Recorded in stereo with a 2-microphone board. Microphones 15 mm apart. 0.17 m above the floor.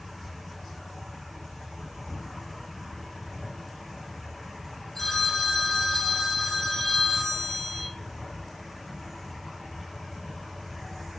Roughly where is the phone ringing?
Centre.